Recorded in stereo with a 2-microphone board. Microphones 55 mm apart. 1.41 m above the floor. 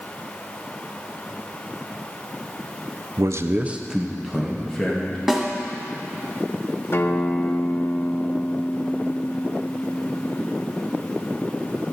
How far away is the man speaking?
About 0.5 m.